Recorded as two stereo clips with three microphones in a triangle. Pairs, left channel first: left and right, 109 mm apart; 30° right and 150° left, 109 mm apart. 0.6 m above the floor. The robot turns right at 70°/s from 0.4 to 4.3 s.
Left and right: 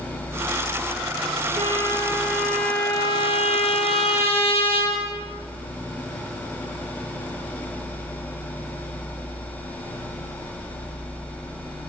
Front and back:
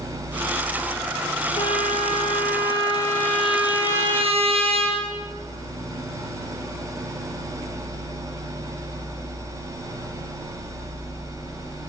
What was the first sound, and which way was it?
A trumpet, 70° right.